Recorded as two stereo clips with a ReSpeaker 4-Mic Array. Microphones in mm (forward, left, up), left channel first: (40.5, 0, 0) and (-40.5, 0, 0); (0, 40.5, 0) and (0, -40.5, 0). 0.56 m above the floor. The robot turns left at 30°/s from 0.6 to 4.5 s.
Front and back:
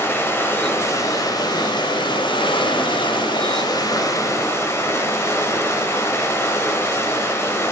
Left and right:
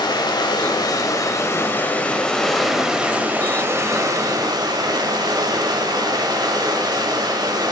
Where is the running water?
60° left, 0.8 m; by 7.7 s 55° right, 0.8 m.